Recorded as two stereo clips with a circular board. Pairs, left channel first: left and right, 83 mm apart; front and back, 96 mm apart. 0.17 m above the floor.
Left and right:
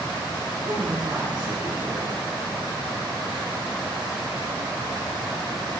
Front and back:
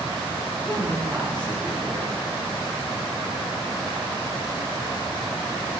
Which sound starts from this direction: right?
A woman speaking, at 0.7 s.